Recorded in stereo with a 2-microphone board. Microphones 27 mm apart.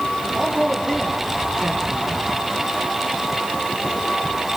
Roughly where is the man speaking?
Left.